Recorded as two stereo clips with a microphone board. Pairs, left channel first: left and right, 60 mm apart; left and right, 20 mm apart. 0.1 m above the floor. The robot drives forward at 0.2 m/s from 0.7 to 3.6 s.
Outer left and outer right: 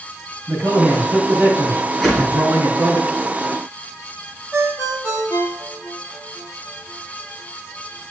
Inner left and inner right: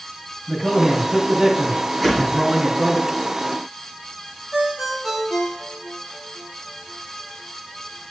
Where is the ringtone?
45° right (ahead or behind), 2 m.